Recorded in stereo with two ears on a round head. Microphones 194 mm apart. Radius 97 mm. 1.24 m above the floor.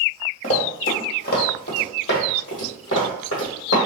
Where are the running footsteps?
35° left (ahead or behind), 1.5 m; by 3.8 s 60° left (ahead or behind), 3 m.